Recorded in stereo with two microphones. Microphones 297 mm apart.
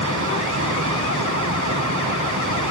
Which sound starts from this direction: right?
Running water, at 0.0 s.